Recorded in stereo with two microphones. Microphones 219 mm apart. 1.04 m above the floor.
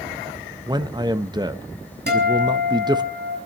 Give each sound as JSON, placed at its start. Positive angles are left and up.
{"t": 0.7, "sound": "a man speaking", "side_deg": -20, "distance_m": 0.8}
{"t": 2.1, "sound": "a guitar", "side_deg": -50, "distance_m": 5.5}